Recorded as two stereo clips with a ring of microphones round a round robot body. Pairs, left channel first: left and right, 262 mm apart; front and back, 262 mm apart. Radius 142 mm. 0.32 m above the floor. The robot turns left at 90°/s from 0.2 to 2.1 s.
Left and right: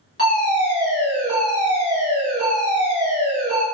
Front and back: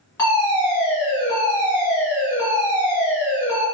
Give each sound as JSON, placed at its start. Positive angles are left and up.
{"t": 0.2, "sound": "a fire alarm", "azimuth_deg": 65, "distance_m": 1.9}